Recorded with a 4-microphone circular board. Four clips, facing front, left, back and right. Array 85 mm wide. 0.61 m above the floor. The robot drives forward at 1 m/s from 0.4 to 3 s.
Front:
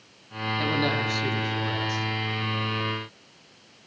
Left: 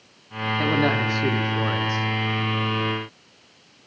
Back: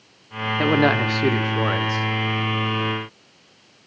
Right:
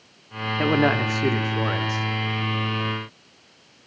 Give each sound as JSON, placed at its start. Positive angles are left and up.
{"t": 0.6, "sound": "a man speaking", "azimuth_deg": -155, "distance_m": 1.5}